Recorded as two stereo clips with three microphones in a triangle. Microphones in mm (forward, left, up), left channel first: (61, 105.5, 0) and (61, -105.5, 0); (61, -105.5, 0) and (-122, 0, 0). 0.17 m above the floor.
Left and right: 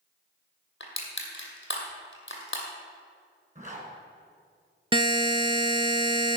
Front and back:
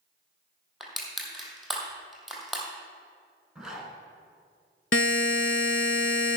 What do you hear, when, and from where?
0.8 s crushing: 60° left, 2 m
3.5 s a zipper: 125° right, 2.5 m
4.9 s a buzzer: 20° right, 0.6 m